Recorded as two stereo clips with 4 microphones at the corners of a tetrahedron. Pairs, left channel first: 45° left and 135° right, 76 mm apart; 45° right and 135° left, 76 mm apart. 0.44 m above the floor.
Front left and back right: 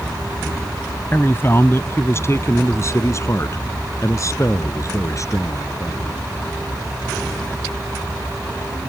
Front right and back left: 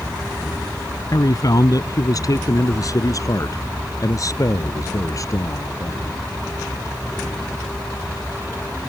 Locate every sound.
1.1 s a man speaking: 15° right; by 6.3 s straight ahead